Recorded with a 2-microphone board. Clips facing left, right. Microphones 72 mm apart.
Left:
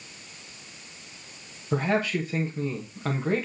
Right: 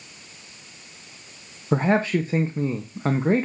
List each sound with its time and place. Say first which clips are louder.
1.7 s a man speaking: right 5 dB; 30° right (ahead or behind), 1.3 m